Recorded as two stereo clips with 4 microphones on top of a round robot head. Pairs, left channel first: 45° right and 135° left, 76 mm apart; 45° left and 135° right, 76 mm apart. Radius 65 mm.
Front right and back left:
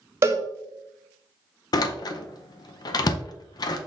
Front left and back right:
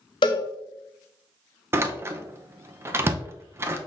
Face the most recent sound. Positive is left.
turn(degrees=-75)